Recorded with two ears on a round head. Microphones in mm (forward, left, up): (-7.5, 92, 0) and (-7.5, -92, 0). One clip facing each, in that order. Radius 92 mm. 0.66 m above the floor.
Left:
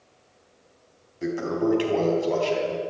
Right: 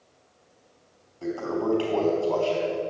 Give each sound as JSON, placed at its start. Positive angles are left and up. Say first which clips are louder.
{"t": 1.2, "sound": "a toilet flushing", "louder": "left 3 dB", "side_deg": 20, "distance_m": 4.0}